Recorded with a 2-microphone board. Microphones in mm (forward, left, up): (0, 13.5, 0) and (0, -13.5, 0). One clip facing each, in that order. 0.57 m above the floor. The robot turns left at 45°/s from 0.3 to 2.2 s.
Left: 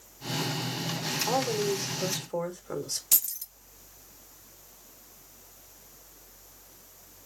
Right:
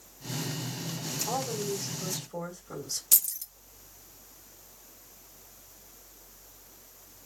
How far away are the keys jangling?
About 0.7 m.